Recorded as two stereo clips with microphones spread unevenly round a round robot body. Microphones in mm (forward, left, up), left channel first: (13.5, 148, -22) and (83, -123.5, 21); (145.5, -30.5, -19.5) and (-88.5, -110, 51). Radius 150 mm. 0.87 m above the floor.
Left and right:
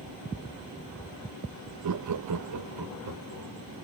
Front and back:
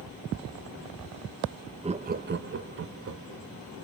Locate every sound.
1.8 s laughter: 85° right, 0.6 m; by 3.5 s 125° right, 1.5 m